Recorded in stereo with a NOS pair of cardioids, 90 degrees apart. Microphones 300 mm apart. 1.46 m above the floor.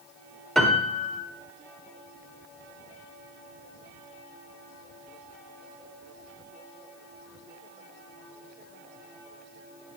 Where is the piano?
Straight ahead, 3.5 m.